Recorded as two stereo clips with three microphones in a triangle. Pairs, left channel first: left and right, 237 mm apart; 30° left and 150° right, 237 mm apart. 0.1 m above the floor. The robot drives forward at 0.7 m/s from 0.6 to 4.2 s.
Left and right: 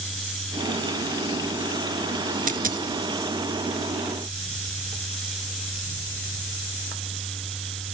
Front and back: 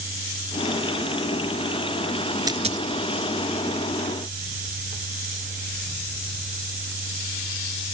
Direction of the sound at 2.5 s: 85° right.